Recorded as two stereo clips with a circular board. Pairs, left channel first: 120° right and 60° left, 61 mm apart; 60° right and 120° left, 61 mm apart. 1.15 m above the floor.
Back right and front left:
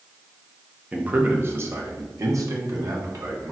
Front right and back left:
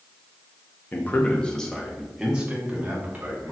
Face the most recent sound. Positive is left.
turn(degrees=60)